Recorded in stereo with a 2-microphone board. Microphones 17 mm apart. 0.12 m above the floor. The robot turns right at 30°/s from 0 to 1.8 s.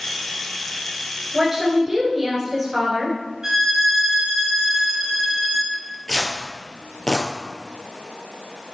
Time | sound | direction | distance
1.3 | a woman speaking | 20° right (ahead or behind) | 1.9 m
3.4 | a violin | 35° right (ahead or behind) | 1.4 m
5.7 | tearing paper | 35° left (ahead or behind) | 1.4 m